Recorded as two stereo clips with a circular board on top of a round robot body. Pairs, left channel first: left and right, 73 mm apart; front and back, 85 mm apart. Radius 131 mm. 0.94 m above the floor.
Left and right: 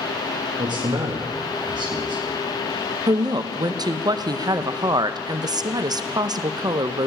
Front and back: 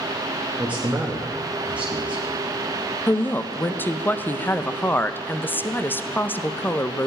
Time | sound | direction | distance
0.6 | a man speaking | 105° right | 1.7 m
3.1 | a woman speaking | 65° right | 0.9 m